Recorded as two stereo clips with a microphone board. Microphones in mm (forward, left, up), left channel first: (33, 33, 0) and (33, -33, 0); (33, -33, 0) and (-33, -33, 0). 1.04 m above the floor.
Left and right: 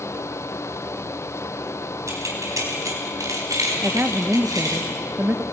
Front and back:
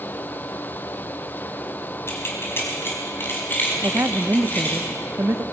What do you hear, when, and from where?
2.1 s keys jangling: 50° right, 4.5 m; by 4.8 s 60° right, 6 m
3.8 s a woman speaking: 145° right, 0.7 m